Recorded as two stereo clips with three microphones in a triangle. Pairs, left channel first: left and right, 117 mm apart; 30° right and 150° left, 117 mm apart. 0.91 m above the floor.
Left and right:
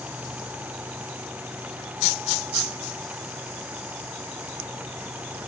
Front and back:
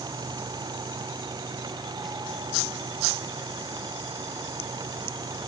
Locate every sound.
Only background noise.